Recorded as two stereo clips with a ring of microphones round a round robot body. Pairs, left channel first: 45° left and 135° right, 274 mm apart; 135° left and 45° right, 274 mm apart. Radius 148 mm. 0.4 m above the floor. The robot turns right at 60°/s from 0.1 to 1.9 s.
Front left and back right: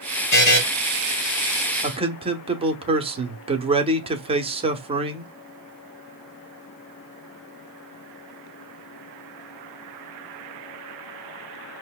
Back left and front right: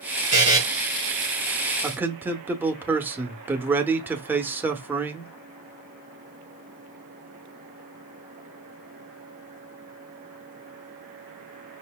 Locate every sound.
0.3 s a buzzer: 20° left, 3 m; by 0.6 s 35° left, 3 m
1.8 s a man speaking: 120° right, 0.8 m; by 5.3 s 115° right, 0.8 m